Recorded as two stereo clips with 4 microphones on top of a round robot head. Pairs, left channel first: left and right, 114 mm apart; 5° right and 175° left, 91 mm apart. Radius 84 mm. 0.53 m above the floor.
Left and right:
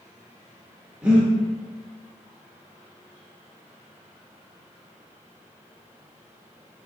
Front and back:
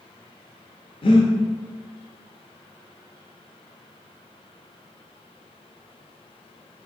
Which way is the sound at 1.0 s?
10° right.